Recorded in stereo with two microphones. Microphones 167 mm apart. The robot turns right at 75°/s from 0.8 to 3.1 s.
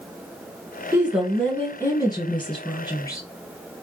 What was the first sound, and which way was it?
A woman speaking, 15° right (ahead or behind).